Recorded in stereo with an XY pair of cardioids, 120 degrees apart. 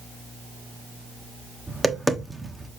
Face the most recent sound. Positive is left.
turn(degrees=-5)